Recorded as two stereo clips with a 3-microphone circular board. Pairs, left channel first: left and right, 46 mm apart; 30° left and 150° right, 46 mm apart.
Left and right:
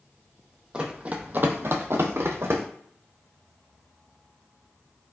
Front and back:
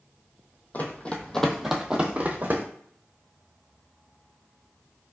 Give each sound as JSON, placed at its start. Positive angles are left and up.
{"t": 0.7, "sound": "running footsteps", "azimuth_deg": -20, "distance_m": 0.7}